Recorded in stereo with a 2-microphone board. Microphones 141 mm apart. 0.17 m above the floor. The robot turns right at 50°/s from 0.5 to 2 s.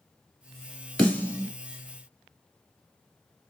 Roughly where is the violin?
No violin in this recording.